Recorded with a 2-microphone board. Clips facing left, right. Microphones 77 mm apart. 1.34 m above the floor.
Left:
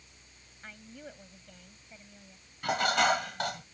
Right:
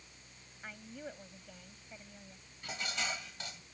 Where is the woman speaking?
10° right (ahead or behind).